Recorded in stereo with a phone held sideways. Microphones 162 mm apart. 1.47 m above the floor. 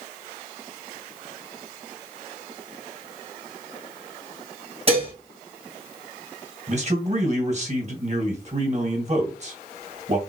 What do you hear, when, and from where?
4.9 s dishes clattering: 35° right (ahead or behind), 1.5 m
6.7 s a man speaking: 45° right (ahead or behind), 1.7 m